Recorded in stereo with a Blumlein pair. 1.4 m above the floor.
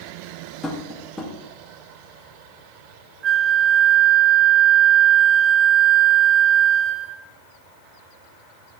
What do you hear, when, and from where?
0.6 s tapping: 10° left, 1.7 m
3.2 s a flute: 25° right, 0.8 m